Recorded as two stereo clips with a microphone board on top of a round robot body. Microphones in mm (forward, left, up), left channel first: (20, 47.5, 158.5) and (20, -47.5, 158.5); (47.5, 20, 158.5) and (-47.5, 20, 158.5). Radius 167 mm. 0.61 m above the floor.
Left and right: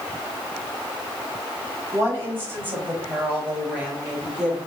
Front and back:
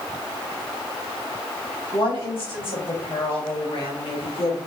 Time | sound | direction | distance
1.9 | a woman speaking | 25° right | 4.5 m